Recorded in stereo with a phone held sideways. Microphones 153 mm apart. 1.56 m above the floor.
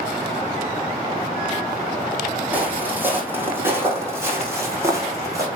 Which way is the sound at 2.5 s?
10° right (ahead or behind).